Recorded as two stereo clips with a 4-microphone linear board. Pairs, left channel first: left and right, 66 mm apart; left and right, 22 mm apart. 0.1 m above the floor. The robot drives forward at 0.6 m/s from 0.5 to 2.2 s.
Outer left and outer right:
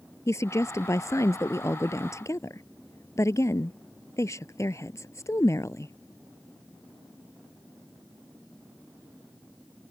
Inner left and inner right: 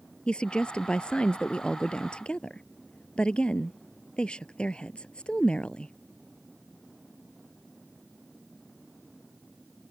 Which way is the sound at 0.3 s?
45° left (ahead or behind).